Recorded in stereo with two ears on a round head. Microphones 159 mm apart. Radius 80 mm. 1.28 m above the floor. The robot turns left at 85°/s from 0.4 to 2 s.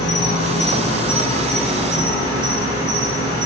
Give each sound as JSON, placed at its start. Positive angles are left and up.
{"t": 0.0, "sound": "an insect", "azimuth_deg": 105, "distance_m": 1.1}